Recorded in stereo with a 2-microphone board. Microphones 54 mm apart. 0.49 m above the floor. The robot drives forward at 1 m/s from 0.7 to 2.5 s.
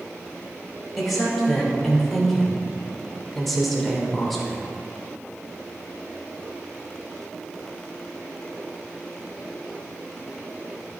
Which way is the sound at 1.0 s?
Centre (ahead or behind).